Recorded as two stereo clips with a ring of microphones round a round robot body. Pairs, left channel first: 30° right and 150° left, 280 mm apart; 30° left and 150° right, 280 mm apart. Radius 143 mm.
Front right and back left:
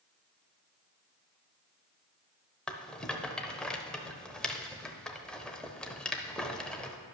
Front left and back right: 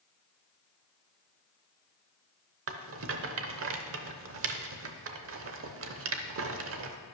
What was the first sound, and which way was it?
A rattle, 115° right.